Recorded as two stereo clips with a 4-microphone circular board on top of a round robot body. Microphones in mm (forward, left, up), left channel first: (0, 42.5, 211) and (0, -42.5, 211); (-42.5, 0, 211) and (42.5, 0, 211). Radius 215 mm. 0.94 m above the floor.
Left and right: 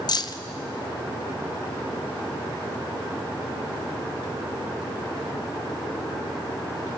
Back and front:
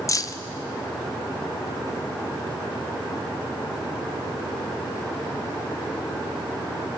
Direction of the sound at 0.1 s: 130° left.